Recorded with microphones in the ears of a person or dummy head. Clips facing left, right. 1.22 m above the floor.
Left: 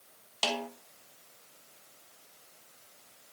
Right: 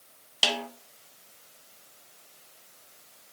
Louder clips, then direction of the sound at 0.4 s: Right 1 dB; 15° right (ahead or behind).